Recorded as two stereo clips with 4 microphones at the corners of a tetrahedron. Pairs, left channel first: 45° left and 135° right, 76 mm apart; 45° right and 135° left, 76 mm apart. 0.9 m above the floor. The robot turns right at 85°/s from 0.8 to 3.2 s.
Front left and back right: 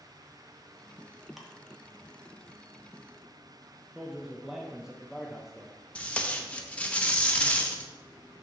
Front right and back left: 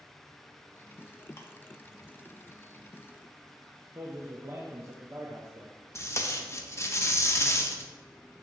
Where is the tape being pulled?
25° right, 0.7 m.